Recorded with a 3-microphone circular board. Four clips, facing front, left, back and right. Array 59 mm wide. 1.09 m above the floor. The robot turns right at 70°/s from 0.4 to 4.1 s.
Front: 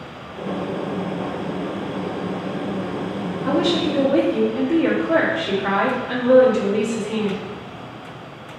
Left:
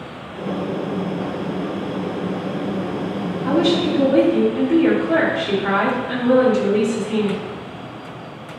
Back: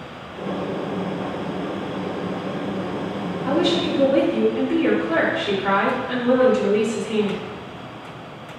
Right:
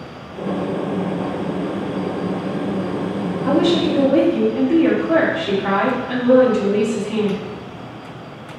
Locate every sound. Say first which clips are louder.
3.5 s a woman speaking: right 1 dB, front 1 dB; 40° right, 1.8 m; by 7.4 s 5° left, 1.8 m